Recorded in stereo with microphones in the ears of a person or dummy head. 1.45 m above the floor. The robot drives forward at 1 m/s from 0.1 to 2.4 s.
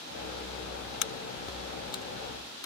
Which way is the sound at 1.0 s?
60° left (ahead or behind).